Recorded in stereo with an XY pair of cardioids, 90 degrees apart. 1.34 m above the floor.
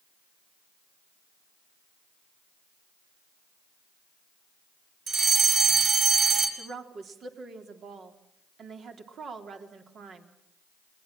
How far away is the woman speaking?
About 3.5 m.